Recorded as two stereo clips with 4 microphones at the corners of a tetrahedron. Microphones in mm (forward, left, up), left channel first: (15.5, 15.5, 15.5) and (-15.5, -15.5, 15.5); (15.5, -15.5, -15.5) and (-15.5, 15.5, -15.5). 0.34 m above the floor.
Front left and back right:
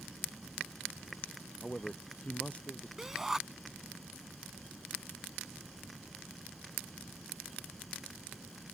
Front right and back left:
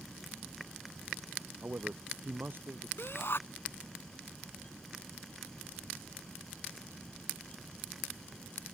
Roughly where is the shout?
Ahead right.